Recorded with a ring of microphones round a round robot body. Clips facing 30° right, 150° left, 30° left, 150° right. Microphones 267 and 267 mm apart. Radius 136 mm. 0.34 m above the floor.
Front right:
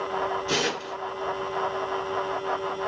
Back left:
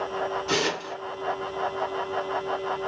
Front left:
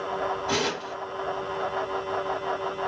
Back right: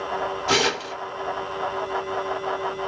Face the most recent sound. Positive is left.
turn(degrees=-125)